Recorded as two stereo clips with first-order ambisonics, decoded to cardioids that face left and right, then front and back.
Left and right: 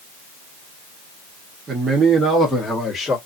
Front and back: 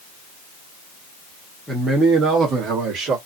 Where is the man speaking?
105° right, 1.0 m; by 3.2 s 160° left, 1.5 m.